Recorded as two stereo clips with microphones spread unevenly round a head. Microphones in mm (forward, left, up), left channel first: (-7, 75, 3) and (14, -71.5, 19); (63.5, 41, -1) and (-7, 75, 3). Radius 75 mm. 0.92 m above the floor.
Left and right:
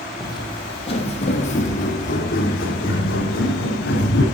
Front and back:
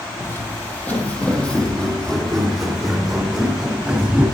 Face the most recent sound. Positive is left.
turn(degrees=75)